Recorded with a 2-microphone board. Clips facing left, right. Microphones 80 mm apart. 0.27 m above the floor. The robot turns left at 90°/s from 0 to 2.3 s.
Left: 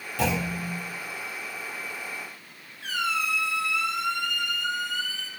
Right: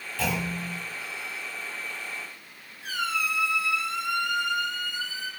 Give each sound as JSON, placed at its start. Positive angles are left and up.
{"t": 0.2, "sound": "a clunk", "azimuth_deg": 165, "distance_m": 3.5}
{"t": 2.8, "sound": "a squeak", "side_deg": 70, "distance_m": 2.0}